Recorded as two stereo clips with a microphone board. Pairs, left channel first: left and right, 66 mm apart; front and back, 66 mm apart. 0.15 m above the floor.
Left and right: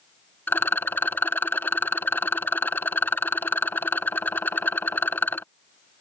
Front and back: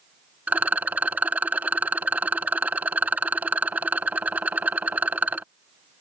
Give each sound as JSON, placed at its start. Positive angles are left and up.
{"t": 0.5, "sound": "a rattle", "azimuth_deg": 130}